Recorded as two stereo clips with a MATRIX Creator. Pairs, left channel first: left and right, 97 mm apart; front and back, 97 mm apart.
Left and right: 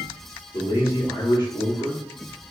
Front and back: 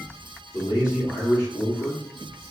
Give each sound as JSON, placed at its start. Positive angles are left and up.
{"t": 0.5, "sound": "a man speaking", "azimuth_deg": 55, "distance_m": 1.1}